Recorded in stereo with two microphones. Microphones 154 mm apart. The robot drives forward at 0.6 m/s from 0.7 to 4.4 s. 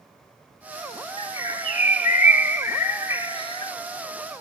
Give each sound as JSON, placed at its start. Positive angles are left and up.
{"t": 1.2, "sound": "a bird", "side_deg": 35, "distance_m": 0.9}